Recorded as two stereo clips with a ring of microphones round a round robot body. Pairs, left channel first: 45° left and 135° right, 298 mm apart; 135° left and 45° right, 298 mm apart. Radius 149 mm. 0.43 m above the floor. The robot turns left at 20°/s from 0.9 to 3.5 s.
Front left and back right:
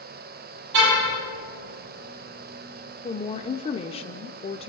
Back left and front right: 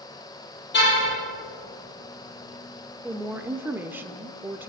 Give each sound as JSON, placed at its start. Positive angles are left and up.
{"t": 0.7, "sound": "a car horn", "azimuth_deg": -170, "distance_m": 6.5}
{"t": 3.0, "sound": "a woman speaking", "azimuth_deg": 35, "distance_m": 0.7}